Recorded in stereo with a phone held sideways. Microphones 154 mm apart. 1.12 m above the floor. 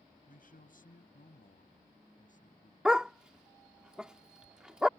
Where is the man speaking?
65° left (ahead or behind); by 2.8 s 60° left (ahead or behind).